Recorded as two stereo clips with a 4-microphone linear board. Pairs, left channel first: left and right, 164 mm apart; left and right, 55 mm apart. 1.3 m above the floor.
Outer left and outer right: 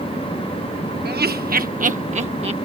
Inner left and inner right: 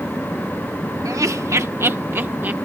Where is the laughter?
70° right (ahead or behind); by 2.5 s 35° right (ahead or behind).